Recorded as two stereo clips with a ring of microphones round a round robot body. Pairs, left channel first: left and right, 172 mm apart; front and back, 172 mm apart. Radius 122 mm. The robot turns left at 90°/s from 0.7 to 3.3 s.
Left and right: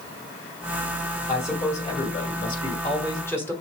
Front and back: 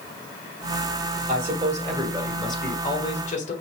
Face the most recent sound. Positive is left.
turn(degrees=20)